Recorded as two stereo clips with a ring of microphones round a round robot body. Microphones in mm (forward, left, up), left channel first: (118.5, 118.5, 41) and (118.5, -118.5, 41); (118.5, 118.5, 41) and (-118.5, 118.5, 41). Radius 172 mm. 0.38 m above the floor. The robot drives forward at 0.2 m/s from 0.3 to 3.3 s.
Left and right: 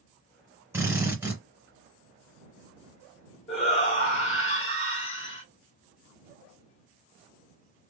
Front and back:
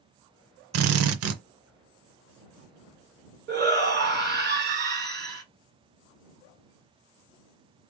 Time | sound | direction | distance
0.7 | a drill | 170° right | 0.5 m
3.5 | a shout | 150° left | 2 m